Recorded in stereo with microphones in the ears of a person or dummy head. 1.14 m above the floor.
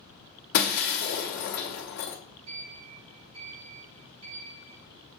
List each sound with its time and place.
0.5 s breaking glass: 45° left (ahead or behind), 0.9 m
2.5 s a sliding door: 70° right (ahead or behind), 4 m